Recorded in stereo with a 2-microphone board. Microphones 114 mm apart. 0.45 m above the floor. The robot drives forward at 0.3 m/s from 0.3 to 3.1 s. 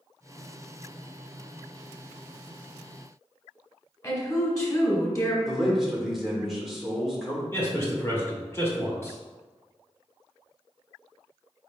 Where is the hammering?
I don't hear hammering.